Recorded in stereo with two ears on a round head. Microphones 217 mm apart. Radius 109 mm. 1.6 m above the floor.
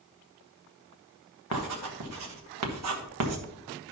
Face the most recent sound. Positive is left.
turn(degrees=-75)  # may be behind; listen again after turning